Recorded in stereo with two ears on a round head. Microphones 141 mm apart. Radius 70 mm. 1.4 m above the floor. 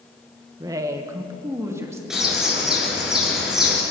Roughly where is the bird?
Centre.